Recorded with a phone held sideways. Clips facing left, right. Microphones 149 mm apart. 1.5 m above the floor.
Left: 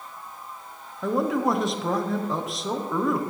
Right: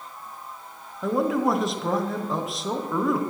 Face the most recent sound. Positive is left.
turn(degrees=0)  # may be behind; listen again after turning